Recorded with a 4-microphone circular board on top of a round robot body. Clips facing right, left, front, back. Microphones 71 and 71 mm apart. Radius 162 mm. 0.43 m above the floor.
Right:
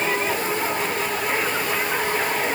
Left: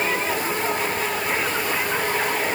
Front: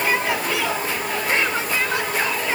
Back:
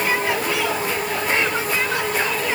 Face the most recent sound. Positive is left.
No sound to turn to.